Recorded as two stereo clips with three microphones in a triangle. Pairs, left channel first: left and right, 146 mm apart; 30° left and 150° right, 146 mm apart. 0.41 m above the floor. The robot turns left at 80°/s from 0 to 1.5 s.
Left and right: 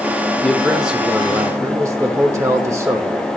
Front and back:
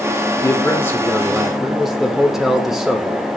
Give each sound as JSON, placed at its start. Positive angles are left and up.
{"t": 0.4, "sound": "a man speaking", "azimuth_deg": 20, "distance_m": 0.9}